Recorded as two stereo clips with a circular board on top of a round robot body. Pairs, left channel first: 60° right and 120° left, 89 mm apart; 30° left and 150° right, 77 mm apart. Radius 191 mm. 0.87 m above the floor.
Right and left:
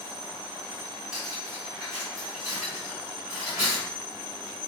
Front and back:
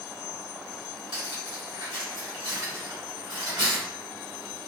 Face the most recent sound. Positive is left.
turn(degrees=-155)